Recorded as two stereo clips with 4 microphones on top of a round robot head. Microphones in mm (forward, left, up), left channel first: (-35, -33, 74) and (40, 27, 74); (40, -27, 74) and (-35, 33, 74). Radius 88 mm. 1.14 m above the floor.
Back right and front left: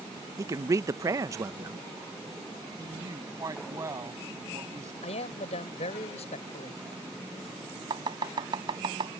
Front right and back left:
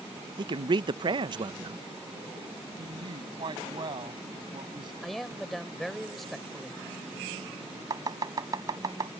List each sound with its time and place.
0.4 s a man speaking: 100° left
2.8 s a woman speaking: 100° left
5.0 s a man speaking: 125° right
7.9 s chopping: 85° left